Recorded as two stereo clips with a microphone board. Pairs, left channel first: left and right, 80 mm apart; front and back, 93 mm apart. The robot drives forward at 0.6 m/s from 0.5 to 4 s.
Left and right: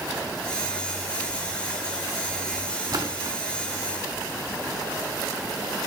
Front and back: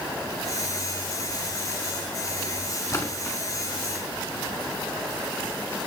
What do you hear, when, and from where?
2.9 s a splash: 55° right, 2.5 m; by 3.4 s 65° right, 2 m